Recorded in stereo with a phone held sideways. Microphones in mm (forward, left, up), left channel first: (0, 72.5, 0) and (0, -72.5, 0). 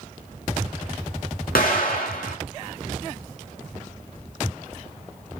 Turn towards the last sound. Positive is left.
turn(degrees=85)